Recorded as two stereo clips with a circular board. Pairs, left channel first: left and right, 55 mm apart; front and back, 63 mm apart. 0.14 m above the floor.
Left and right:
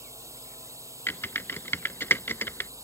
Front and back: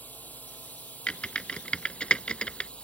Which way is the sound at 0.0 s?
65° right.